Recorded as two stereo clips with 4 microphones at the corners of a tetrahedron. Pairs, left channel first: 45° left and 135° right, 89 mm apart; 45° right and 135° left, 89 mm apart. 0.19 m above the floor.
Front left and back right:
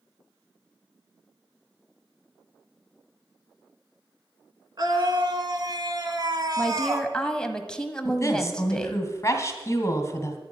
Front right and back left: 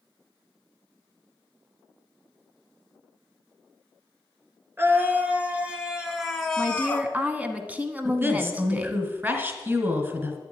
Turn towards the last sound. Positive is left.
turn(degrees=80)